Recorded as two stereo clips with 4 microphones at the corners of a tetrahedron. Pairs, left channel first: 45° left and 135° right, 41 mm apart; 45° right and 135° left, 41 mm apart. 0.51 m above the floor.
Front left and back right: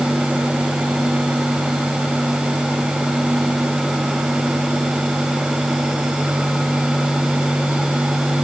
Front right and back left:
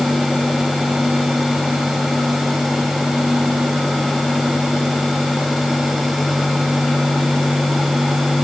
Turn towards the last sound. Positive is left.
No sound to turn to.